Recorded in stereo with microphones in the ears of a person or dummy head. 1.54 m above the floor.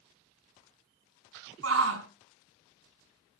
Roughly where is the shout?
Right.